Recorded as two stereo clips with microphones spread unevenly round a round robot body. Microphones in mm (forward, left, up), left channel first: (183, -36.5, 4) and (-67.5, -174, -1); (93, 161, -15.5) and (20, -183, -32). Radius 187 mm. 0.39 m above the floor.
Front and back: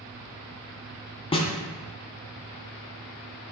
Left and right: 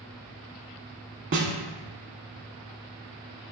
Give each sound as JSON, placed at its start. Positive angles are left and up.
{"t": 1.3, "sound": "a snare drum", "azimuth_deg": -45, "distance_m": 0.7}